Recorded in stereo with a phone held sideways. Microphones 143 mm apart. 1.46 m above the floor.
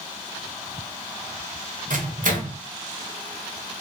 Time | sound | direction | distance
1.9 | a microwave | 65° right (ahead or behind) | 0.7 m